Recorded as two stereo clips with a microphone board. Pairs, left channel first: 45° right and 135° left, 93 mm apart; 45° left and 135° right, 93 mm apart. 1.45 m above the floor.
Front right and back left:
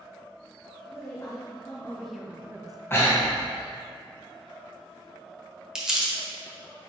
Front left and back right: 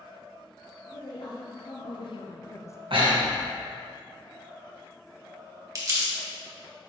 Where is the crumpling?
145° right, 1.4 m.